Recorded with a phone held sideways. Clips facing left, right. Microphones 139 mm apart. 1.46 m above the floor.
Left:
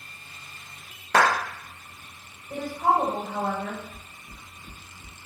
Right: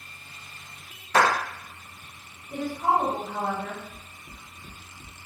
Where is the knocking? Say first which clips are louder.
Even; 45° right (ahead or behind), 0.7 m.